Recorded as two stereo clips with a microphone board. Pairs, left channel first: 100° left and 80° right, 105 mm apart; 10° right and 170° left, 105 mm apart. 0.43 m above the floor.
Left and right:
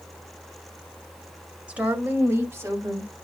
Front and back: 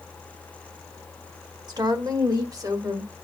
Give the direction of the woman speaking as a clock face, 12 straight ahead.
5 o'clock.